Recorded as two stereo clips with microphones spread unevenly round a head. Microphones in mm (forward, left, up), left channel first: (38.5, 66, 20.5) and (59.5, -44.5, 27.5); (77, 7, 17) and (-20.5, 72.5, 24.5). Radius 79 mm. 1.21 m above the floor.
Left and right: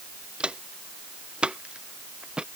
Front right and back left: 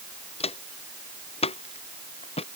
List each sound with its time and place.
0.4 s footsteps: straight ahead